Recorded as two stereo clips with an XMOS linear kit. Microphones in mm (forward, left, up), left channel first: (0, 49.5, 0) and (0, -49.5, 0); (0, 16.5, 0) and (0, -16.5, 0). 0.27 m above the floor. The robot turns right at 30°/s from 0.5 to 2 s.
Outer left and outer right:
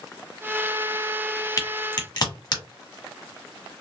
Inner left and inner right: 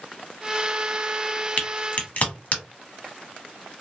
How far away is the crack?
About 1.1 m.